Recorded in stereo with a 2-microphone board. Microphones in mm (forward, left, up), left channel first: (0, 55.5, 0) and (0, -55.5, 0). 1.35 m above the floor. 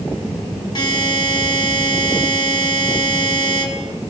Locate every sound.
0.8 s a buzzer: 45° left (ahead or behind), 2.5 m